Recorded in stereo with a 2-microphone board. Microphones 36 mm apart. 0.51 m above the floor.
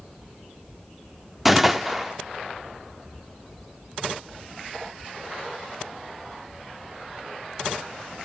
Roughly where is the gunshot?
Centre.